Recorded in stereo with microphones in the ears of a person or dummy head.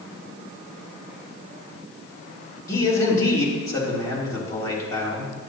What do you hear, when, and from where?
2.7 s a man speaking: 15° left (ahead or behind), 3 m